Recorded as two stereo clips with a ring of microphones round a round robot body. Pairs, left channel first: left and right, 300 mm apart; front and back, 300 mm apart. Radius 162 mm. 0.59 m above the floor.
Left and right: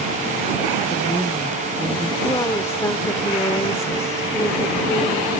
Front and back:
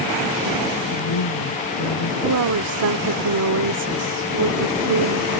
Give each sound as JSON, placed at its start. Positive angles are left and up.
{"t": 0.9, "sound": "a woman speaking", "azimuth_deg": 5}
{"t": 2.2, "sound": "a woman speaking", "azimuth_deg": 170}